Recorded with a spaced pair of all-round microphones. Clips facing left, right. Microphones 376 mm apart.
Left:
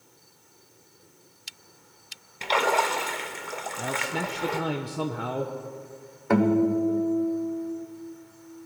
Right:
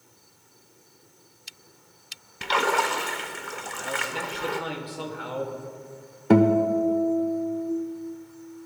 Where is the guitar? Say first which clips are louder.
Right 2 dB; 45° right (ahead or behind), 0.9 m.